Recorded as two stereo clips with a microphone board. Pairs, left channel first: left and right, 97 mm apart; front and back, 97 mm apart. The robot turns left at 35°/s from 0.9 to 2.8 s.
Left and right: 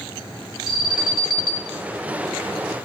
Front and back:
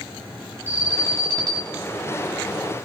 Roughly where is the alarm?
Behind right.